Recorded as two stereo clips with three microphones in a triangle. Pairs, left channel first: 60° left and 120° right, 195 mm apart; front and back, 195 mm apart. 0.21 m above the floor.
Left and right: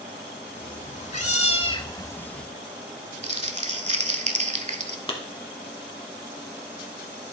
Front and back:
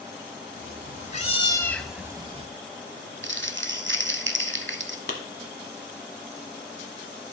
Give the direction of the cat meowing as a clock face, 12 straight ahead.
11 o'clock.